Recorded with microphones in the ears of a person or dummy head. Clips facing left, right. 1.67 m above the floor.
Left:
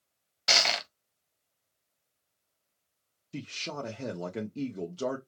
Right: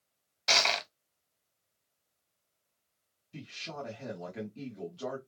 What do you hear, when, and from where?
0.5 s crushing: 5° left (ahead or behind), 0.6 m
3.3 s a man speaking: 70° left (ahead or behind), 1.0 m